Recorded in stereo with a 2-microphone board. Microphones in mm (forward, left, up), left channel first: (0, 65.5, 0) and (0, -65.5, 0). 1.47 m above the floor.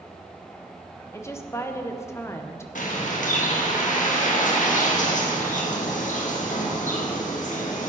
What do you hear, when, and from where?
1.1 s a woman speaking: 20° left (ahead or behind), 1.0 m
2.8 s a bird: 75° left (ahead or behind), 1.7 m